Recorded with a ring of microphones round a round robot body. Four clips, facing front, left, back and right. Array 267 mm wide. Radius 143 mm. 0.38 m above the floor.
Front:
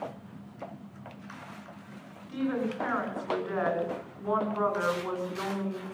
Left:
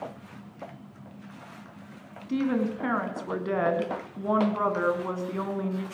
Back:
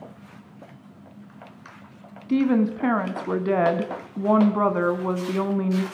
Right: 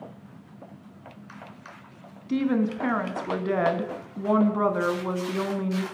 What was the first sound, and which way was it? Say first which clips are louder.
A woman speaking: right 2 dB, back 10 dB; 170° right.